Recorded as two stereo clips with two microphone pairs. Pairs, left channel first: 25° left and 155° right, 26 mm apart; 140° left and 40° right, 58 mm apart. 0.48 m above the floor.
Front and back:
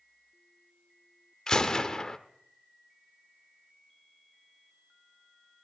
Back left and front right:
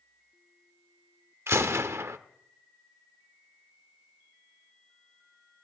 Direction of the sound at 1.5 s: 35° right.